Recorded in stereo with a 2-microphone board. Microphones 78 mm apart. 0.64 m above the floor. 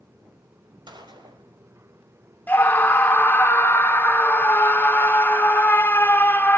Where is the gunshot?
75° right (ahead or behind), 3 m.